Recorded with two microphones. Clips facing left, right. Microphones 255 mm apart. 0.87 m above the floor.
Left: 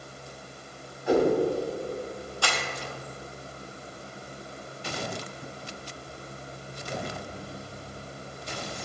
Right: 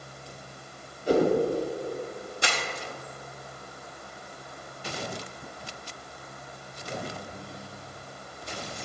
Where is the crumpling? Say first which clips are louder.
Even; 20° right (ahead or behind), 0.7 m.